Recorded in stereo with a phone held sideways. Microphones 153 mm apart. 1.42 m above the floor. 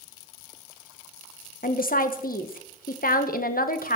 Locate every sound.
1.6 s a woman speaking: 70° left (ahead or behind), 1.5 m